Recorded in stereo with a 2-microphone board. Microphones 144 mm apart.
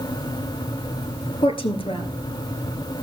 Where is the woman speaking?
40° left (ahead or behind), 1.6 m.